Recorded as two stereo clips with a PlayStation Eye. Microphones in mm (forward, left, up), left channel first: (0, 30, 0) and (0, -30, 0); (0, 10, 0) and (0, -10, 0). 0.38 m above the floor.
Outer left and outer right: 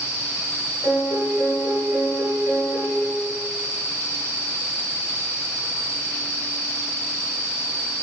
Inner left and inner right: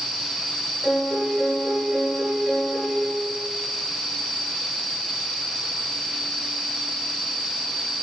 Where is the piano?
75° right (ahead or behind), 3 m.